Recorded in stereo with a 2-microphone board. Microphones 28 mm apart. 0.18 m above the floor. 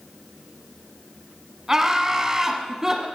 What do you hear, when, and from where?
1.7 s laughter: 20° right (ahead or behind), 1.2 m; by 3.1 s 15° right (ahead or behind), 1.1 m